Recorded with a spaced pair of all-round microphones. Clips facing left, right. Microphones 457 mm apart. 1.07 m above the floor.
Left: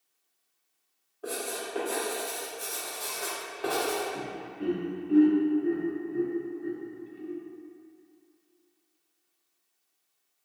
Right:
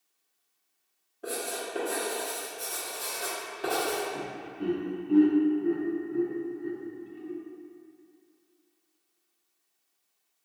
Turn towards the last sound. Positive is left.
turn(degrees=-15)  # may be behind; listen again after turning